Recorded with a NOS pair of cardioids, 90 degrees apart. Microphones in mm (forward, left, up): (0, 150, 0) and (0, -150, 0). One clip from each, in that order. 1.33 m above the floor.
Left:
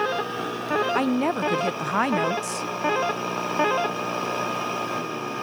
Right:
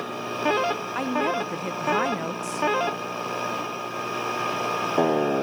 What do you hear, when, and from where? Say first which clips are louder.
0.9 s a woman speaking: left 1 dB; 20° left, 0.5 m